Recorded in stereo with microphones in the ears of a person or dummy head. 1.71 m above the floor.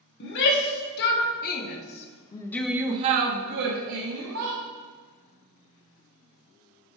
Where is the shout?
65° left (ahead or behind), 1.6 m; by 4.6 s 75° right (ahead or behind), 1.2 m.